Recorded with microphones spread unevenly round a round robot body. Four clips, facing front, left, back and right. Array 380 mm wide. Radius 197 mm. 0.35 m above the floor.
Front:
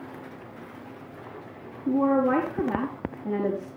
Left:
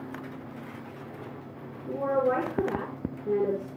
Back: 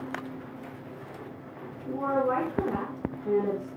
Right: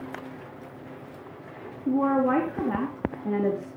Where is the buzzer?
No buzzer in this recording.